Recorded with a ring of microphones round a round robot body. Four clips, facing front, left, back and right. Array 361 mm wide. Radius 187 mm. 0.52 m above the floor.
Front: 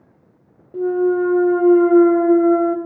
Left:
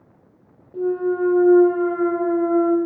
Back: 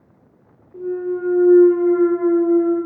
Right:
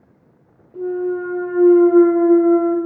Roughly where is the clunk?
Ahead.